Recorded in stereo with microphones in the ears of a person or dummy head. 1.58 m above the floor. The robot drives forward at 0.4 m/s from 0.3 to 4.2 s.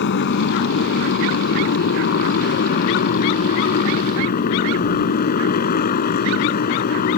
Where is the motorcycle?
55° left (ahead or behind); by 7.2 s 45° left (ahead or behind).